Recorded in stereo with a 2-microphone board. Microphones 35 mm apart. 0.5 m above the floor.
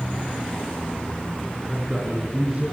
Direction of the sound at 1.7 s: 5° right (ahead or behind).